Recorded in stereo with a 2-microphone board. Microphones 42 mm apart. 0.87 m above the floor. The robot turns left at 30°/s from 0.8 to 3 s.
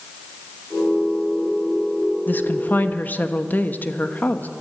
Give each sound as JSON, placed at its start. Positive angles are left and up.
{"t": 2.3, "sound": "a woman speaking", "side_deg": 55, "distance_m": 1.1}